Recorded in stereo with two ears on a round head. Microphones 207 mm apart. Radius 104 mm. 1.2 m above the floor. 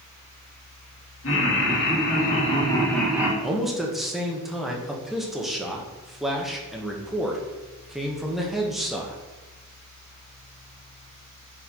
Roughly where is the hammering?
I don't hear hammering.